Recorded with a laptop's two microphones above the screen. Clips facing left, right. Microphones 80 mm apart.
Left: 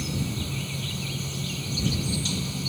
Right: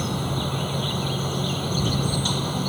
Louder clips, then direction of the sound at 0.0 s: Right 5 dB; 50° right (ahead or behind).